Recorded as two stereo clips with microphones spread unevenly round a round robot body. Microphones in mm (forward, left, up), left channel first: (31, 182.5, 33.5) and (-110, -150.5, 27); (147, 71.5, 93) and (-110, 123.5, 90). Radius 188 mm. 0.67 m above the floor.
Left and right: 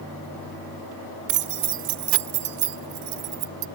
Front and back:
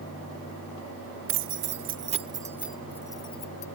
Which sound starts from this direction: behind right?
Keys jangling, at 1.3 s.